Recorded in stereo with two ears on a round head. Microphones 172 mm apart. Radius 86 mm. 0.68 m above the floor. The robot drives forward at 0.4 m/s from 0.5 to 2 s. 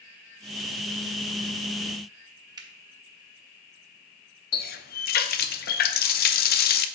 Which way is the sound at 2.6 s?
20° right (ahead or behind).